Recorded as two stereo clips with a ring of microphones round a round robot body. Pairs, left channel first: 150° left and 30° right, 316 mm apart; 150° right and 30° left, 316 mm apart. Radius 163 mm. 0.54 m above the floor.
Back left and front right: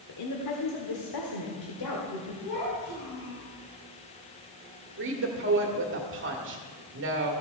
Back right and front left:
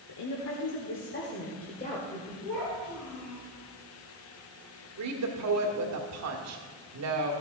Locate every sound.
0.1 s a woman speaking: 175° right, 1.3 m; by 2.3 s 135° left, 1.8 m
2.4 s a child speaking: 170° left, 5 m
5.0 s a woman speaking: 15° left, 1.7 m